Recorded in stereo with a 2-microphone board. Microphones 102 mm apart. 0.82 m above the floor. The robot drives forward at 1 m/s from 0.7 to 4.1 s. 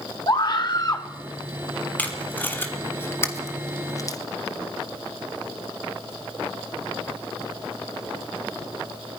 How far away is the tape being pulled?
About 3 m.